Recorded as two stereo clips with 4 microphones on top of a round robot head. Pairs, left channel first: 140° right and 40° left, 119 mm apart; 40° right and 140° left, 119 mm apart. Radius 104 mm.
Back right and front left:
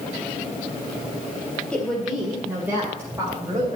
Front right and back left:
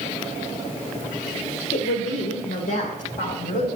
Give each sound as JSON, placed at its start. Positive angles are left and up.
{"t": 1.7, "sound": "a woman speaking", "azimuth_deg": -60, "distance_m": 2.0}